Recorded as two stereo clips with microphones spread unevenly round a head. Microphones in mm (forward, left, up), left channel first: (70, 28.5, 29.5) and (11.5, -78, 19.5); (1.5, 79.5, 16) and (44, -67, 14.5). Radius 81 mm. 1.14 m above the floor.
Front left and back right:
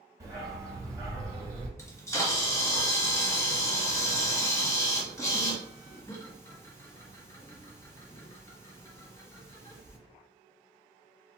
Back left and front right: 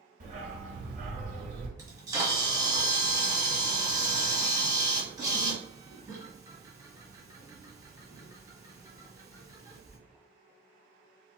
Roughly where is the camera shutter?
Ahead.